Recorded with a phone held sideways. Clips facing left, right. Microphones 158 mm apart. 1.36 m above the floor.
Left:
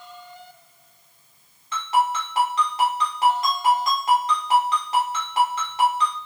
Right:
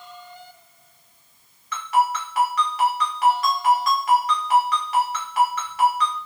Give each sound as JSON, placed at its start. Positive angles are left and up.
{"t": 1.7, "sound": "a ringtone", "side_deg": 25, "distance_m": 2.5}